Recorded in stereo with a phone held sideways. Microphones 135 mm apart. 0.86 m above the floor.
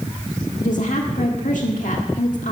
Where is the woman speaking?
70° left (ahead or behind), 1.6 m.